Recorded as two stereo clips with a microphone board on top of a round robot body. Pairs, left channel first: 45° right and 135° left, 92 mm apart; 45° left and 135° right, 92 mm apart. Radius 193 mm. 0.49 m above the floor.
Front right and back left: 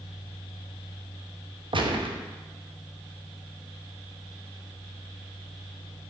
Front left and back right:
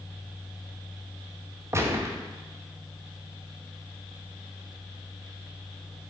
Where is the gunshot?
165° left, 1.1 m.